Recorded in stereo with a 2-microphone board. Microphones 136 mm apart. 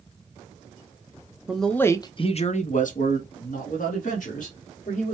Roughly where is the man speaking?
Centre.